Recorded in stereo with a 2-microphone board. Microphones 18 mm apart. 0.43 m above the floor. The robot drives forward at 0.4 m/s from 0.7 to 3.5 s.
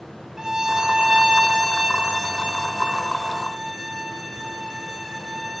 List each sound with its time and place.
0.4 s a violin: 35° right (ahead or behind), 0.6 m; by 5.6 s 20° right (ahead or behind), 1.1 m